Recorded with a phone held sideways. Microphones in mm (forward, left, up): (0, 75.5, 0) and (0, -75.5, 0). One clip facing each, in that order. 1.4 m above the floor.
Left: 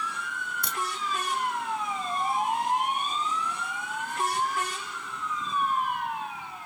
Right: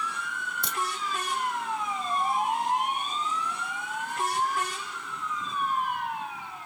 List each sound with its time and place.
0.6 s a crack: 25° right (ahead or behind), 1.2 m